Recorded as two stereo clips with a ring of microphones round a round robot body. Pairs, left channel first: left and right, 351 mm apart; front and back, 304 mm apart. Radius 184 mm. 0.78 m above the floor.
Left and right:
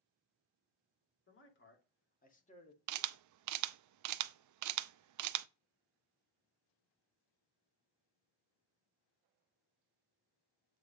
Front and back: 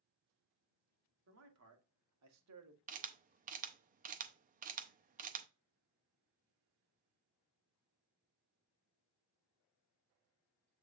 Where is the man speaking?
145° left, 2.5 m; by 2.8 s 165° left, 1.5 m.